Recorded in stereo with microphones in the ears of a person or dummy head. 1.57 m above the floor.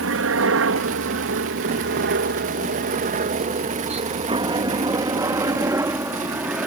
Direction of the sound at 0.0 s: 65° right (ahead or behind).